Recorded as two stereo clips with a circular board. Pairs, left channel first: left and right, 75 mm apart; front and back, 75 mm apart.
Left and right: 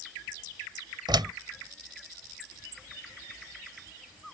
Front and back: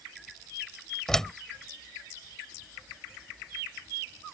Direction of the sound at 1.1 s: 85° right.